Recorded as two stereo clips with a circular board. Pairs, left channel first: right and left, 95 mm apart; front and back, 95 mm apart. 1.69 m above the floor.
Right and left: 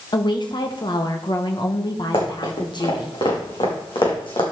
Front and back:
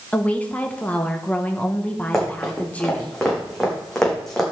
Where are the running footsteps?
90° right, 5 m; by 4.4 s 85° right, 3.5 m.